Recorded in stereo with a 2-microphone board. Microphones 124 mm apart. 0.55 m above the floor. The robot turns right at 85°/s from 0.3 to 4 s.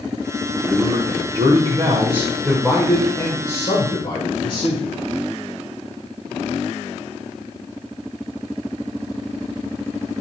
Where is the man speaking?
170° left, 2 m; by 4.9 s 110° left, 2 m.